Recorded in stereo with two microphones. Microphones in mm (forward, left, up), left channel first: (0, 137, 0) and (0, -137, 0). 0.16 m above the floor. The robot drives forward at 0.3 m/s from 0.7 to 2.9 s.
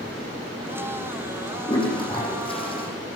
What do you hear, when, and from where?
1.7 s a toilet flushing: 20° left (ahead or behind), 9.5 m